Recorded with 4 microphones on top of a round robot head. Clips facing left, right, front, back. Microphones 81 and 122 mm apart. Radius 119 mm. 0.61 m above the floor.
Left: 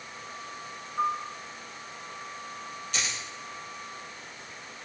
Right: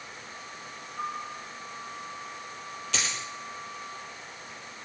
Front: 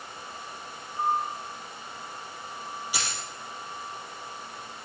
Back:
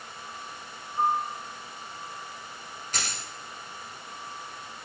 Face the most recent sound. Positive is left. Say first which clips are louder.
# right 2 dB, back 1 dB
turn(degrees=-85)